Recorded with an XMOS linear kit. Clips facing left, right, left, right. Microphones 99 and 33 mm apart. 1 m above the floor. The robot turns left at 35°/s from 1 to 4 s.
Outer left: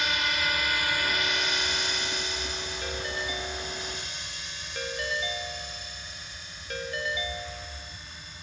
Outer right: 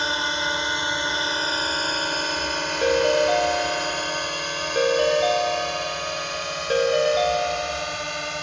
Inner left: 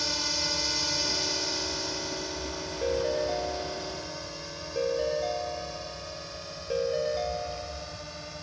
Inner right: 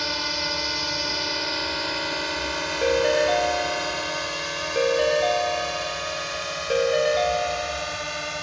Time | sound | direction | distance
0.0 | a drone | 30° right (ahead or behind) | ?
2.8 | a ringtone | 75° right | ?